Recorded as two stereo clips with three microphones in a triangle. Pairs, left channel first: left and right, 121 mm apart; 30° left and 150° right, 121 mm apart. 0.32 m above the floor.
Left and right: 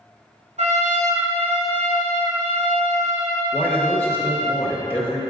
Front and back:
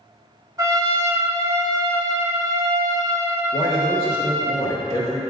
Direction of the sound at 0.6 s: 90° right.